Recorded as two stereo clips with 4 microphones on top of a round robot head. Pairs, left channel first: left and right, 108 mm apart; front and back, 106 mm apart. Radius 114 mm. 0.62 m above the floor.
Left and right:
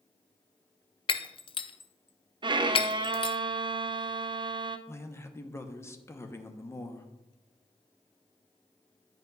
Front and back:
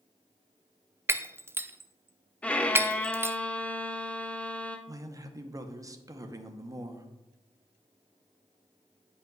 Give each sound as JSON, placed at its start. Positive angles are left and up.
{"t": 1.1, "sound": "breaking glass", "azimuth_deg": 115, "distance_m": 0.5}
{"t": 2.4, "sound": "a violin", "azimuth_deg": -75, "distance_m": 0.6}
{"t": 4.9, "sound": "a man speaking", "azimuth_deg": 140, "distance_m": 0.9}